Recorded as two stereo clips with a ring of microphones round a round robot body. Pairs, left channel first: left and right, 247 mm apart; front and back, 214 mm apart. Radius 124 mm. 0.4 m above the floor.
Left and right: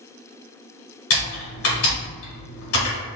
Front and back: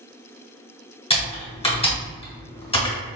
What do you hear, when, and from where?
1.1 s typing on a keyboard: 60° left, 1.6 m